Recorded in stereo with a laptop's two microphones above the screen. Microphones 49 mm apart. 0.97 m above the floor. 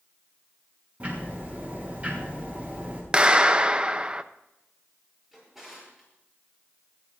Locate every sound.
1.0 s ticking: 30° right (ahead or behind), 6.5 m
3.1 s a clap: 20° right (ahead or behind), 0.6 m
5.3 s a drawer: 5° right (ahead or behind), 8 m